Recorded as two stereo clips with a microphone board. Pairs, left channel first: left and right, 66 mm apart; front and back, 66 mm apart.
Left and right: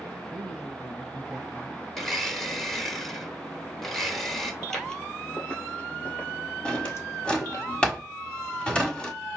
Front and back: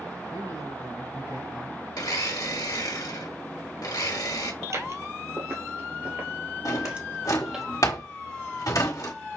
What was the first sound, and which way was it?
A man speaking, 170° left.